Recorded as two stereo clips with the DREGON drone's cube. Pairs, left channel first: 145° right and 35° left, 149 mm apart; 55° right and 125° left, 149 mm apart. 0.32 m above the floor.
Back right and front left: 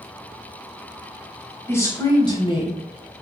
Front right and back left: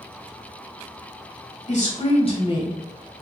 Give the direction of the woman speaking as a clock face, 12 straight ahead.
2 o'clock.